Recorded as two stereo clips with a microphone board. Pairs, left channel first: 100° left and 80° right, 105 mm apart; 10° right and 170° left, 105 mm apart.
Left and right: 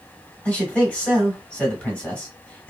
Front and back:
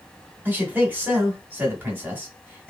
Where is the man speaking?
150° left, 1.2 m.